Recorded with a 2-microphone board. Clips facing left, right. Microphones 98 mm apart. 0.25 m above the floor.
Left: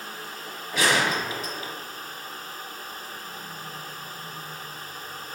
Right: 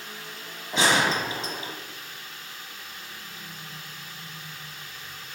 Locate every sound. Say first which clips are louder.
0.7 s a gunshot: right 1 dB; 25° right (ahead or behind), 0.9 m